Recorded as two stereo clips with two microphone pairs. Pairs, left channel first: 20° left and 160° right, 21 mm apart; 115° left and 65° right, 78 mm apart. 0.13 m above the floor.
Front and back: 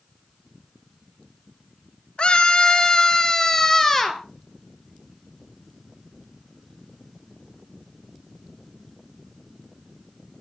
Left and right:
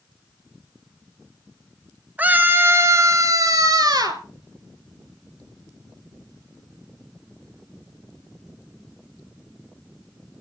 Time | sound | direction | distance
2.2 | a scream | straight ahead | 1.9 m